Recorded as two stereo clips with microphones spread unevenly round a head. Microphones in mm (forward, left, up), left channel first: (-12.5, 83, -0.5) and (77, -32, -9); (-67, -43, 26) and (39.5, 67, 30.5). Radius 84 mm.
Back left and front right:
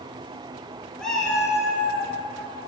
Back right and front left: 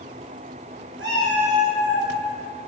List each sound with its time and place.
1.0 s a cat meowing: 45° left, 2.5 m; by 2.1 s 30° left, 3 m